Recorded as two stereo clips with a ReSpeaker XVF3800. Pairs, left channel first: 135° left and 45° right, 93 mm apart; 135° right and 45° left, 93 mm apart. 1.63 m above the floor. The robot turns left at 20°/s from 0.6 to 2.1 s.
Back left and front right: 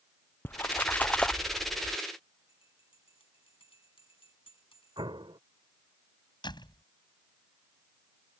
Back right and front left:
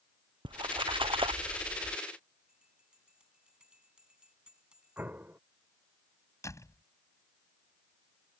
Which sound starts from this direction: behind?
A door slam, at 6.4 s.